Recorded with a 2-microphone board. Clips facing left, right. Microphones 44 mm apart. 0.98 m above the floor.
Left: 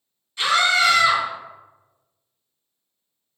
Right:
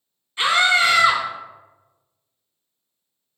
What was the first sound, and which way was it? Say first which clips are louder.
A scream: right 1 dB; 20° right (ahead or behind).